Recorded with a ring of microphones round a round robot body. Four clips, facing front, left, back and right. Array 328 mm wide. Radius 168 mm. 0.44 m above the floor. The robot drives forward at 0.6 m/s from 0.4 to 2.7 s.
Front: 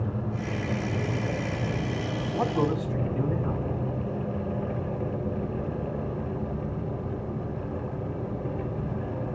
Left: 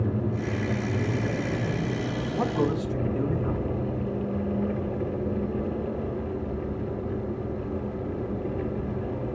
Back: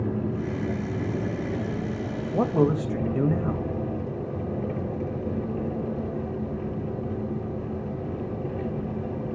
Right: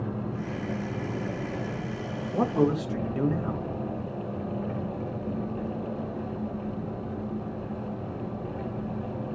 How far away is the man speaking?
About 2 m.